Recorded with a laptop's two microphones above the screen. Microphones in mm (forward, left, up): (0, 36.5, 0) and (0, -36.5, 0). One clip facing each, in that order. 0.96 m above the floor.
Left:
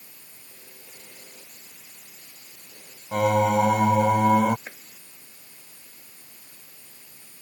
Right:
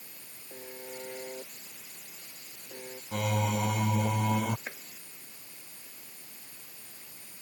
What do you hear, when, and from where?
0.5 s a buzzer: 55° right (ahead or behind)
3.1 s singing: 55° left (ahead or behind)
4.7 s chopping: 5° right (ahead or behind)